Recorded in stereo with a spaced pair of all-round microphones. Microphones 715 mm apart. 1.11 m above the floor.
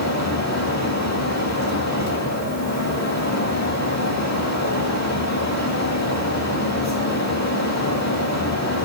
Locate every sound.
0.0 s a fan: 20° left (ahead or behind), 2.5 m